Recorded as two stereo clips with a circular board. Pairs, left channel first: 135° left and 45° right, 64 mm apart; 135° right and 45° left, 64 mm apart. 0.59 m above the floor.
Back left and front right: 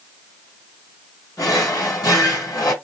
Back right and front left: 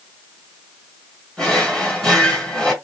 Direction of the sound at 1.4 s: 145° left.